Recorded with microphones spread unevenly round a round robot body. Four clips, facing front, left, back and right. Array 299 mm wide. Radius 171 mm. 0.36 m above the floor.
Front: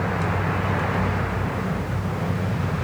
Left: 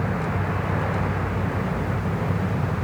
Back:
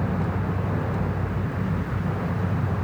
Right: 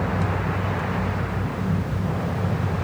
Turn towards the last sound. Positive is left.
No sound to turn to.